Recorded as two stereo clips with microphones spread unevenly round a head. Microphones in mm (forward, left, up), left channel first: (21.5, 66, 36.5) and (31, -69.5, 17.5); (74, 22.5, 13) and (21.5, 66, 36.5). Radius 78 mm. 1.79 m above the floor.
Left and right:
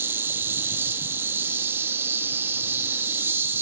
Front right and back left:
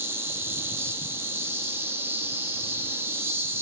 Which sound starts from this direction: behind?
An insect, at 0.0 s.